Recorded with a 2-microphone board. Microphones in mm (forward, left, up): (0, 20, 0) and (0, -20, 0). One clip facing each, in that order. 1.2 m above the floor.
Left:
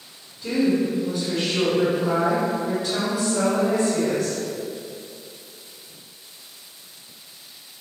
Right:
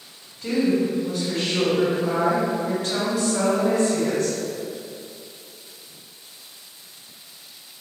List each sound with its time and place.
0.4 s a woman speaking: 70° right (ahead or behind), 1.7 m